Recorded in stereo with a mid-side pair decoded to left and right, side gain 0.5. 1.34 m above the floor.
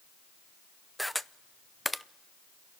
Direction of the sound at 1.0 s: 5° left.